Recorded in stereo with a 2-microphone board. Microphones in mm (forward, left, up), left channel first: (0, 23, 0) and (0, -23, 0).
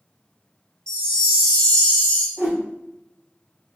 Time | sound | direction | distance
0.9 | a chime | 20° left (ahead or behind) | 0.9 m
2.4 | a whoosh | 60° right (ahead or behind) | 1.7 m